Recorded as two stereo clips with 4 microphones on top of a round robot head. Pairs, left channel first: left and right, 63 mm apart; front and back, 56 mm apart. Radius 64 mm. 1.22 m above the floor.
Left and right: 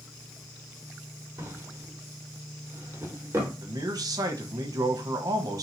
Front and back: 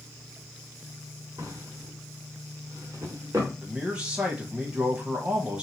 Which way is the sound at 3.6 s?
105° right.